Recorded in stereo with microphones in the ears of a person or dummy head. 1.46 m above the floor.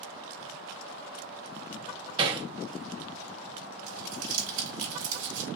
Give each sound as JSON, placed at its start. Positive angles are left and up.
{"t": 2.2, "sound": "hammering", "side_deg": -30, "distance_m": 0.6}
{"t": 3.9, "sound": "crumpling", "side_deg": -70, "distance_m": 1.2}